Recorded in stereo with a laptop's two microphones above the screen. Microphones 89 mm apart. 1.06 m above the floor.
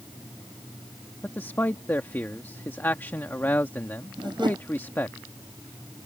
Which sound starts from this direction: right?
A whoosh, at 4.2 s.